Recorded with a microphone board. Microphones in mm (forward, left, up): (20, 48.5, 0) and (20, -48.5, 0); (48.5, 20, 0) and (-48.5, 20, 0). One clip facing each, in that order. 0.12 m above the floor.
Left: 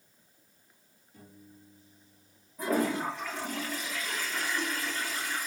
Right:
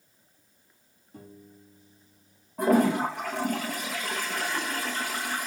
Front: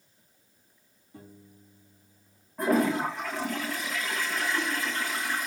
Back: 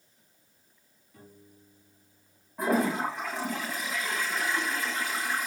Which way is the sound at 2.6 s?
90° right.